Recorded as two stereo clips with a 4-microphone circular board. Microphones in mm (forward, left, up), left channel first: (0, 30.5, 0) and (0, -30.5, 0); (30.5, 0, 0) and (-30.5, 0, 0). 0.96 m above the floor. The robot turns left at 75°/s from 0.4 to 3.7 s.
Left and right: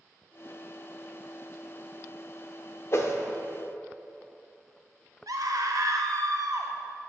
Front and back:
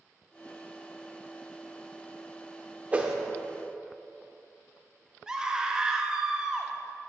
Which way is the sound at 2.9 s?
120° left.